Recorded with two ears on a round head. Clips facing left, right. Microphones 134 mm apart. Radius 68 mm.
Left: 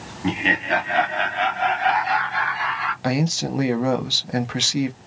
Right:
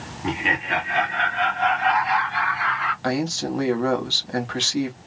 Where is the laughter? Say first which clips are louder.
Left 3 dB; 35° left (ahead or behind), 1.1 m; by 2.9 s 55° left (ahead or behind), 2.5 m.